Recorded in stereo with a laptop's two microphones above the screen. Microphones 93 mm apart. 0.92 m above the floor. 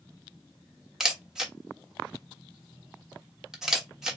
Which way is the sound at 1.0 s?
5° right (ahead or behind).